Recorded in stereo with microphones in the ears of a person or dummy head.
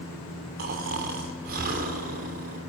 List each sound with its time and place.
0.6 s snoring: 45° right (ahead or behind), 3 m